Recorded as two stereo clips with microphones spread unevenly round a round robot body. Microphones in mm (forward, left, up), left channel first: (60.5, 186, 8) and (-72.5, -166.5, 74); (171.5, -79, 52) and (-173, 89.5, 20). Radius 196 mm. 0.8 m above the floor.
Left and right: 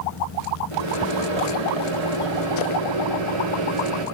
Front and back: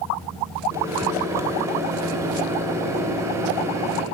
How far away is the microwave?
About 1.5 m.